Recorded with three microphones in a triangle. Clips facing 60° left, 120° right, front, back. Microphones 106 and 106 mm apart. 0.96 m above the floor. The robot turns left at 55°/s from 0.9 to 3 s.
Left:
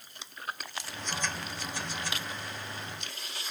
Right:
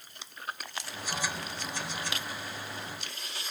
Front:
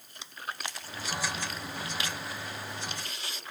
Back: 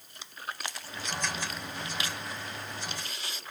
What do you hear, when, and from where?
Only background noise.